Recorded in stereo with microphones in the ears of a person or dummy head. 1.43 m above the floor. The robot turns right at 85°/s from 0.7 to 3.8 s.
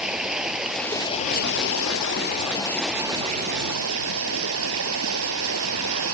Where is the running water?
5° right; by 6.1 s 100° right.